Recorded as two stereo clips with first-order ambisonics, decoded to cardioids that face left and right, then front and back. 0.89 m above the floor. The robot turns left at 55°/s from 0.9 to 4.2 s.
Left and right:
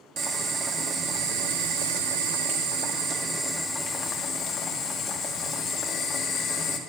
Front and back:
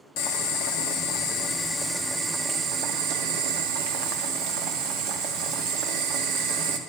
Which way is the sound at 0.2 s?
25° right.